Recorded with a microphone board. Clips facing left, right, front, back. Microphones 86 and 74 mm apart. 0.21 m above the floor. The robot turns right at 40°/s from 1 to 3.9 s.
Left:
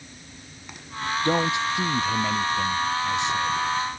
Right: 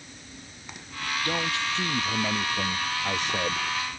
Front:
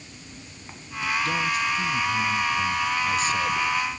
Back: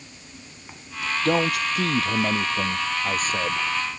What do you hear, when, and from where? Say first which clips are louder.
1.2 s a man speaking: left 7 dB, back 7 dB; 150° left; by 3.6 s 115° right